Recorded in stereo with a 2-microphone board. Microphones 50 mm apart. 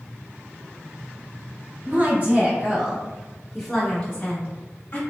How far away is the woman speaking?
About 1.2 m.